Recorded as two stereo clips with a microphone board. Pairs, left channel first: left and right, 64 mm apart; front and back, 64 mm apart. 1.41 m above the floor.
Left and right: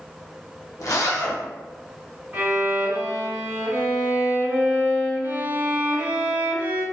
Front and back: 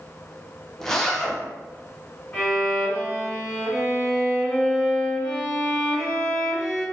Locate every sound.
0.8 s a zipper: 80° left, 0.5 m
2.3 s a violin: 50° right, 1.7 m